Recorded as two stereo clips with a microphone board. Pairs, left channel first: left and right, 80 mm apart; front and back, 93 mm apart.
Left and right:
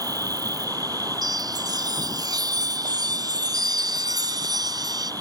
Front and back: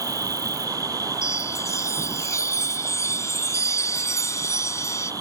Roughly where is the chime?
Ahead right.